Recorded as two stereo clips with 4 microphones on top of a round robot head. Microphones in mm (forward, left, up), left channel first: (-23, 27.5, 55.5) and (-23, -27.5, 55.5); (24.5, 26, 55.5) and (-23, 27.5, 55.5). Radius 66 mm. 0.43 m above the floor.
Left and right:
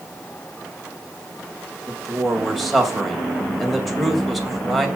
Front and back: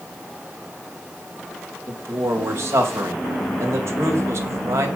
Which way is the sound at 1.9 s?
Straight behind.